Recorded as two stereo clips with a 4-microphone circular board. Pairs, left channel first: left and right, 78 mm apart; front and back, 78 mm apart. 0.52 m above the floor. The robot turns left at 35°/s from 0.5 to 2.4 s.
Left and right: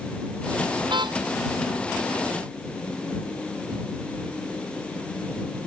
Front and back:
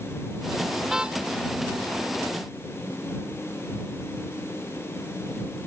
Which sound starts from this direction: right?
A car horn, at 0.9 s.